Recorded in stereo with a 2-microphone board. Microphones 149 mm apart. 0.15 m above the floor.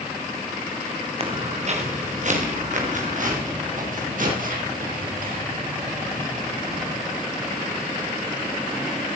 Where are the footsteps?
40° right (ahead or behind), 3 m; by 7.0 s 70° right (ahead or behind), 10.5 m.